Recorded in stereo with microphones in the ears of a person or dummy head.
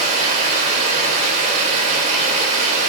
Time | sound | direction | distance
0.0 | running water | 45° right (ahead or behind) | 2 m